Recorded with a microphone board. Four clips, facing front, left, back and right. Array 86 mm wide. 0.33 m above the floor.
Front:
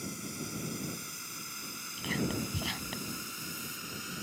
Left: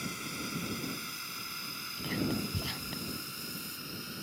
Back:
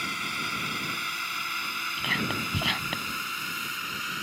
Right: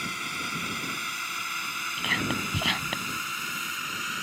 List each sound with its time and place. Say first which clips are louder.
0.0 s a drone: right 6 dB, back 8 dB; 145° right; by 4.2 s 130° right
2.0 s whispering: right 3 dB, back 2 dB; 125° right